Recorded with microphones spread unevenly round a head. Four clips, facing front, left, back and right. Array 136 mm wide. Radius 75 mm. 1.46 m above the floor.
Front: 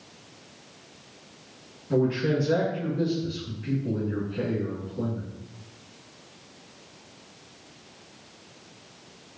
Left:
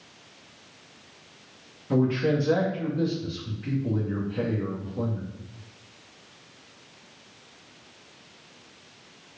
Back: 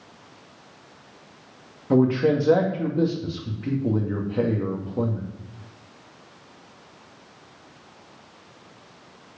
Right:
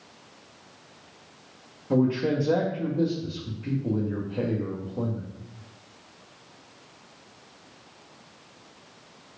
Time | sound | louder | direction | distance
1.9 | a man speaking | even, back 5 dB | 170° right | 2 m